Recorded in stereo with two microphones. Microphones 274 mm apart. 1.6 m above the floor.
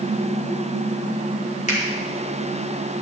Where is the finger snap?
25° left (ahead or behind), 4 m.